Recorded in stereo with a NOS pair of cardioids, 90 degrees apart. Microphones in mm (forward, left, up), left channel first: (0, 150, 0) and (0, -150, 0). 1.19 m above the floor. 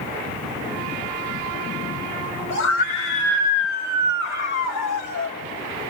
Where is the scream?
60° left, 3 m; by 5.4 s 65° left, 1.5 m.